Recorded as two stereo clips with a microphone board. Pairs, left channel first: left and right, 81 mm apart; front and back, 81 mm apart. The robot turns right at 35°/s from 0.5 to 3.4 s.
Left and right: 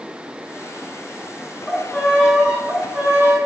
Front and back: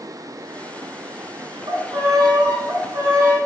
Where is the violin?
170° left, 0.6 m; by 3.4 s 130° right, 0.6 m.